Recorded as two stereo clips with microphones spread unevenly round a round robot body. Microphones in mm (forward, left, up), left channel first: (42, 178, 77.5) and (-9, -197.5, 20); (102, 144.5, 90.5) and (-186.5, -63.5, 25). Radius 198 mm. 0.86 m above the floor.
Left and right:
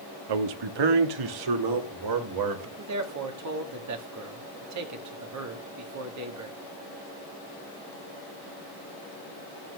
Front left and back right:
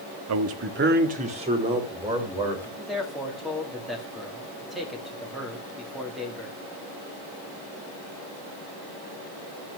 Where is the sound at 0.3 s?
105° right, 1.2 m; by 2.7 s 60° right, 3.5 m.